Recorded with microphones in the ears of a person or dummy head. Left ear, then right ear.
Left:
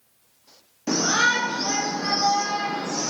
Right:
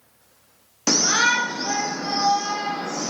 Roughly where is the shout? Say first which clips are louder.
Right 2 dB; right.